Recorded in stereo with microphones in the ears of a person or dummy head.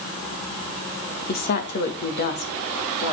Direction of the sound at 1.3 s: 45° left (ahead or behind).